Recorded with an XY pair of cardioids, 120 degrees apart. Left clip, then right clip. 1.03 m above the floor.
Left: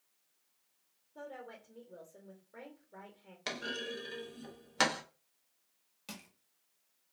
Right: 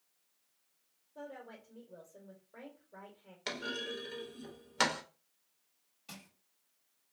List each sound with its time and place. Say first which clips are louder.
1.1 s a woman speaking: left 1 dB; 15° left, 1.1 m
3.5 s a clunk: even; 10° left, 0.8 m
6.1 s crushing: left 2 dB; 55° left, 1.3 m